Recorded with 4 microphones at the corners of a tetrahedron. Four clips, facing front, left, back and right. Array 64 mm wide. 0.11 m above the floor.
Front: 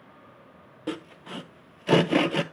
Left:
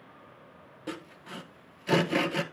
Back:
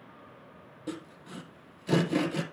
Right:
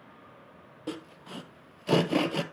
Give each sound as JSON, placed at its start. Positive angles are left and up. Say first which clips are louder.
{"t": 0.9, "sound": "sawing", "louder": "right 1 dB, front 5 dB", "azimuth_deg": -10, "distance_m": 0.6}